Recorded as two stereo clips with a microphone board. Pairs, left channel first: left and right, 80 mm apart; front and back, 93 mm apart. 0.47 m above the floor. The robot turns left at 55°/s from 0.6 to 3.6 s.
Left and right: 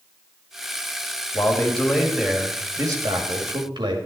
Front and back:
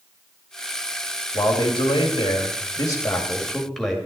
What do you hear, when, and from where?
1.3 s a man speaking: 35° left, 2 m; by 4.0 s 85° right, 2 m